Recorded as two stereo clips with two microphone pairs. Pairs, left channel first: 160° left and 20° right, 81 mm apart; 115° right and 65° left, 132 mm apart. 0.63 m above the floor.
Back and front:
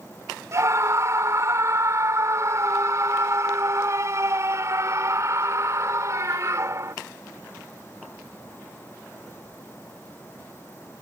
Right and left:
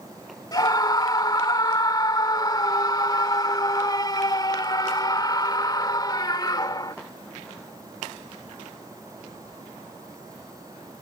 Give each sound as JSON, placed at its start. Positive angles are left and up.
{"t": 0.5, "sound": "a scream", "azimuth_deg": -65}